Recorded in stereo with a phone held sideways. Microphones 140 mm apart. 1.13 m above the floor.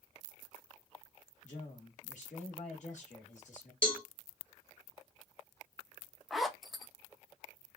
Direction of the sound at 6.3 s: Centre (ahead or behind).